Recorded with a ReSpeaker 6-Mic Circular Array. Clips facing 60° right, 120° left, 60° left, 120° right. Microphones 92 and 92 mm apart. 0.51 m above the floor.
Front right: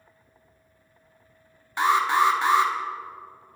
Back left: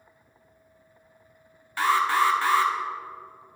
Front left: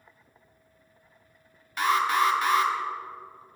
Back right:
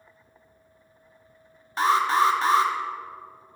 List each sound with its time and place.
1.8 s an alarm: 110° right, 0.8 m